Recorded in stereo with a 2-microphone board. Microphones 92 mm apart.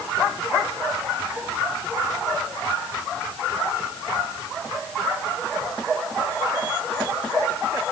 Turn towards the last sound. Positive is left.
No sound to turn to.